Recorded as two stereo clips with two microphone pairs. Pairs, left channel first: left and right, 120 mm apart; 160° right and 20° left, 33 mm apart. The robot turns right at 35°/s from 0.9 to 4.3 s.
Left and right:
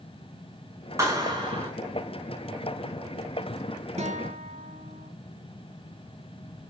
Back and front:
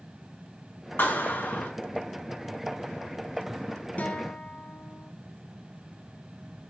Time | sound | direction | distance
1.0 | a clap | 155° right | 7 m
4.0 | a guitar | 115° right | 1.8 m